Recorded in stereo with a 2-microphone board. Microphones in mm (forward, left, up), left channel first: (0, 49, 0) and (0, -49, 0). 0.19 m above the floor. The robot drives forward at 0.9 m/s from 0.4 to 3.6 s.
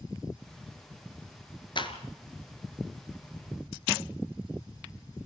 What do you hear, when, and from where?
1.8 s a clap: 55° left (ahead or behind), 2.5 m